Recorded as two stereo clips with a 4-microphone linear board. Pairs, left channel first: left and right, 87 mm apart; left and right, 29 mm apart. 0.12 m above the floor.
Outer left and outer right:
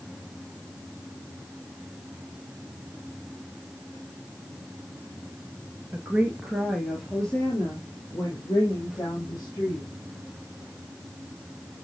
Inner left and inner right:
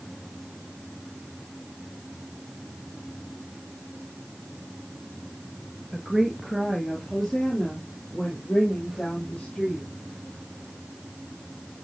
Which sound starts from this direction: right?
A woman speaking, at 5.9 s.